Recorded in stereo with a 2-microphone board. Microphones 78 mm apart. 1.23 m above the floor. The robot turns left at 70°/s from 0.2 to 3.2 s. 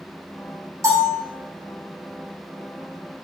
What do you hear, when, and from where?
0.8 s a bell: 40° right (ahead or behind), 4 m; by 1.2 s 70° right (ahead or behind), 4 m